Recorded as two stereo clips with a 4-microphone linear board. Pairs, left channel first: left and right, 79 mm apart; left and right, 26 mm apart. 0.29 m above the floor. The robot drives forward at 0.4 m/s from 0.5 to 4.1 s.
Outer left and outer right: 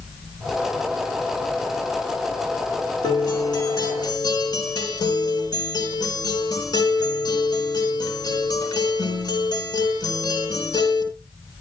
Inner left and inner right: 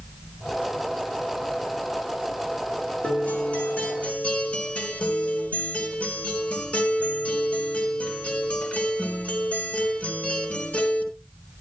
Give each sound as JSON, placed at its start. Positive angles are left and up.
{"t": 3.0, "sound": "a guitar", "side_deg": 65, "distance_m": 3.5}